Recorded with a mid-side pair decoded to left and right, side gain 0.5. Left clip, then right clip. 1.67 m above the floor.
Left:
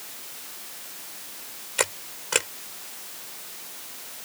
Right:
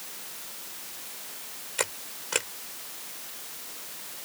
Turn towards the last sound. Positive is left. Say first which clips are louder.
# left 5 dB
turn(degrees=25)